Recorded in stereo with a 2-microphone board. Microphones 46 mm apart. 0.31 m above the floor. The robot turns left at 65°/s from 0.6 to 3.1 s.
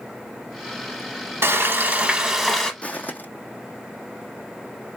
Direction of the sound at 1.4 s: 110° right.